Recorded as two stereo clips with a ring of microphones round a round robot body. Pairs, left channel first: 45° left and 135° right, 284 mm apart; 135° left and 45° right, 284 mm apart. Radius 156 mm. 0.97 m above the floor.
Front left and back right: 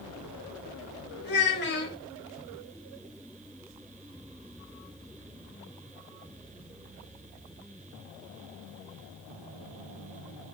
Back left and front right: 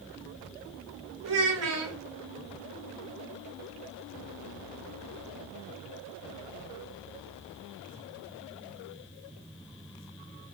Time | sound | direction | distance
1.2 | a child speaking | 10° right | 2.5 m